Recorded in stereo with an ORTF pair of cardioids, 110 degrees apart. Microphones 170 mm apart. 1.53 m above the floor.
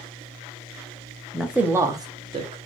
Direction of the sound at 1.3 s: Straight ahead.